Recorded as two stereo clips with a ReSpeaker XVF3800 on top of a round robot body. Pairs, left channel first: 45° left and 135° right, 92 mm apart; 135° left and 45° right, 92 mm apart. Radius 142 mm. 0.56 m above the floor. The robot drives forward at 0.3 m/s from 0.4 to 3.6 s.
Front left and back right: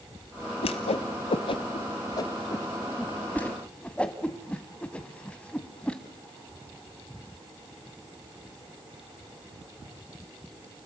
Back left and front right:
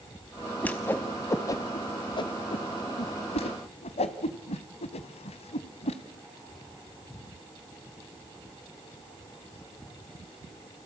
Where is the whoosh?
60° left, 0.9 m; by 6.0 s 125° left, 0.9 m.